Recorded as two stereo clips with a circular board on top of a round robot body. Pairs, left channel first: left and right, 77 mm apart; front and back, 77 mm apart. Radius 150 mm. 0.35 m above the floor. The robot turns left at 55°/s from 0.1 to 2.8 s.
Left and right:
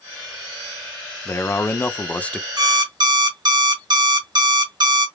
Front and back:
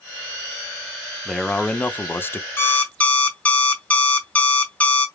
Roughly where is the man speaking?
Left.